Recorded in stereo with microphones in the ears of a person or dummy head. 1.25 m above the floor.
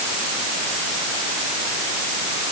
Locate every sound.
Only background noise.